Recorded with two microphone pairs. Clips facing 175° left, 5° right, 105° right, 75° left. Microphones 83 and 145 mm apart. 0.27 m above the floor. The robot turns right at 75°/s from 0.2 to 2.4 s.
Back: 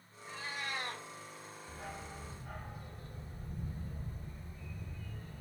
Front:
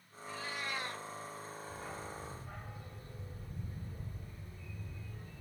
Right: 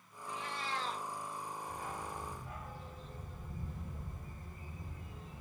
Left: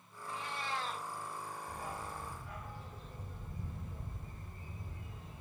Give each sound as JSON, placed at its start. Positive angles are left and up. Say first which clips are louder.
{"t": 0.3, "sound": "a cat meowing", "louder": "front 1 dB, even", "azimuth_deg": 115, "distance_m": 1.0}
{"t": 1.7, "sound": "a dog barking", "louder": "back 1 dB, right 1 dB", "azimuth_deg": 145, "distance_m": 1.3}